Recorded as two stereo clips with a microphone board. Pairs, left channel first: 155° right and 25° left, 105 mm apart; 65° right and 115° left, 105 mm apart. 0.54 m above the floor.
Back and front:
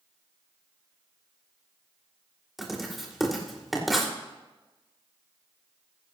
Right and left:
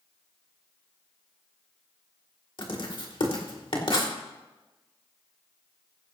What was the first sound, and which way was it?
Writing, 65° right.